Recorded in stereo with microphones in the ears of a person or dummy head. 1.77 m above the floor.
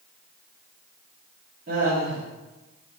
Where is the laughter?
50° right (ahead or behind), 1.6 m.